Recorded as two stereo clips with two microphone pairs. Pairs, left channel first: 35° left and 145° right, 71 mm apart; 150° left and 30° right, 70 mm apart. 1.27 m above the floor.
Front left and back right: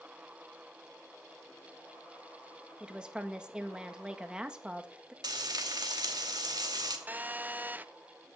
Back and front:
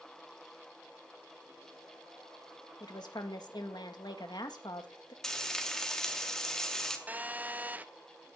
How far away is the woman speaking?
About 1.7 m.